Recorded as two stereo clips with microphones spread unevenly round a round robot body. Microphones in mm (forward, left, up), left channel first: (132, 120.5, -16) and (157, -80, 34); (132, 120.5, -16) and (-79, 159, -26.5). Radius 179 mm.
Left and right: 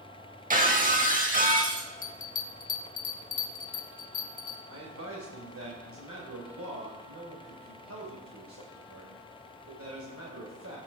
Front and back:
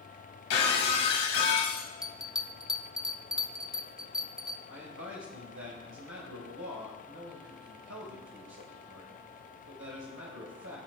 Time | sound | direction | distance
0.5 | breaking glass | 30° right | 2 m
2.0 | a bell | 85° left | 1.1 m
4.7 | a man speaking | 135° right | 2.5 m